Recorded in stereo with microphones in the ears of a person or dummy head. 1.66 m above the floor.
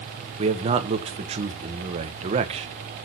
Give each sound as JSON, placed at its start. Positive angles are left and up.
{"t": 0.4, "sound": "a man speaking", "side_deg": -35, "distance_m": 1.1}